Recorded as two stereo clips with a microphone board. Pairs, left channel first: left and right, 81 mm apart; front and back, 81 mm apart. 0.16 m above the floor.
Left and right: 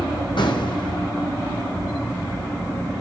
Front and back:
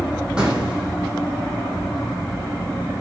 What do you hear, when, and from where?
0.4 s an explosion: 100° left, 4 m